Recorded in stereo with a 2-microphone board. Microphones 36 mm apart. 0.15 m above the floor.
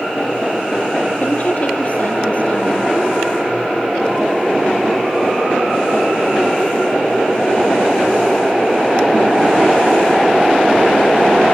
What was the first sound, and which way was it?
A woman speaking, 40° left (ahead or behind).